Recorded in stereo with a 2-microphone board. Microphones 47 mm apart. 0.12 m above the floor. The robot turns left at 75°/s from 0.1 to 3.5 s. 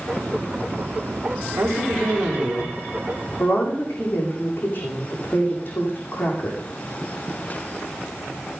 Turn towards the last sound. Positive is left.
turn(degrees=135)